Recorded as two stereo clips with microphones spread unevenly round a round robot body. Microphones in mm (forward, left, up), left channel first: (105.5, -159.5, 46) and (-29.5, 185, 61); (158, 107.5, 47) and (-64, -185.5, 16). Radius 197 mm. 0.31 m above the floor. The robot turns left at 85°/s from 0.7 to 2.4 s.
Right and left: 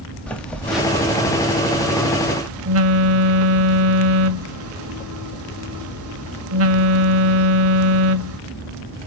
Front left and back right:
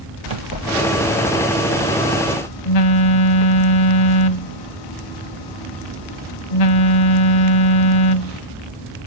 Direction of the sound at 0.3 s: 155° right.